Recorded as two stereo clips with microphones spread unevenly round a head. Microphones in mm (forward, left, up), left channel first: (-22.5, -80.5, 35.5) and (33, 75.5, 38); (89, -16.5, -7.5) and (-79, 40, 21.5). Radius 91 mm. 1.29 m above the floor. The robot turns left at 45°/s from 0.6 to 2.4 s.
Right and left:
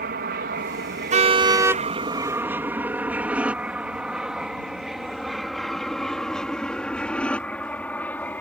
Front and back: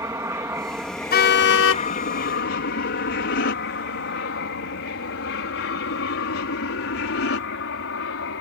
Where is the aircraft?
90° left; by 8.4 s 30° right.